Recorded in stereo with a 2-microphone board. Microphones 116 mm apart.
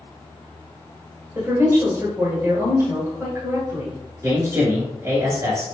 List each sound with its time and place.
1.4 s a woman speaking: 25° right (ahead or behind), 1.4 m
4.2 s a man speaking: 25° right (ahead or behind), 1.2 m